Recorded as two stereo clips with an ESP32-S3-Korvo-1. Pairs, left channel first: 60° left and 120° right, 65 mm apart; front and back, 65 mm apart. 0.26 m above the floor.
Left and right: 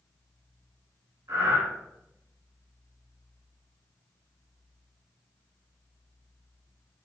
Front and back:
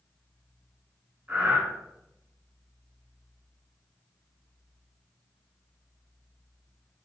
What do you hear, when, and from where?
1.3 s breathing: 125° right, 1.2 m